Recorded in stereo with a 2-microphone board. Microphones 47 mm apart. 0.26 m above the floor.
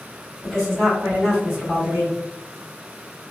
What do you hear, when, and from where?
0.4 s a woman speaking: 15° left (ahead or behind), 1.8 m; by 2.2 s 20° right (ahead or behind), 1.6 m